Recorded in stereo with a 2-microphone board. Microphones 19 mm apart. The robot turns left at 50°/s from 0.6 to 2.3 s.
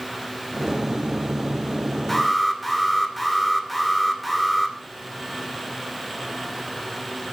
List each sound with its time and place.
2.1 s an alarm: 10° left (ahead or behind), 2.5 m; by 4.8 s centre (ahead or behind), 2.5 m